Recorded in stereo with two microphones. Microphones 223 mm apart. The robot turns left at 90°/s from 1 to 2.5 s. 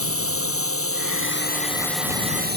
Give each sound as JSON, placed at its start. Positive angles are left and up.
{"t": 0.0, "sound": "a drone", "azimuth_deg": 85}